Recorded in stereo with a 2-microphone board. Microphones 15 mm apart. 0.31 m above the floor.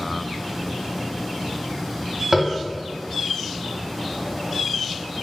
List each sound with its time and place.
2.3 s tapping: 25° right (ahead or behind), 0.7 m